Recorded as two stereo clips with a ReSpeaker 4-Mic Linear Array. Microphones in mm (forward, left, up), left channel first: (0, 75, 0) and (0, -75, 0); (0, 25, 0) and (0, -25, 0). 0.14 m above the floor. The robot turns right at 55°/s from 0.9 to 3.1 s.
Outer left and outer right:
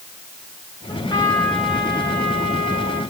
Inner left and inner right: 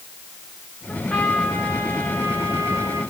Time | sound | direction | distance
0.9 | a trumpet | 145° left | 8 m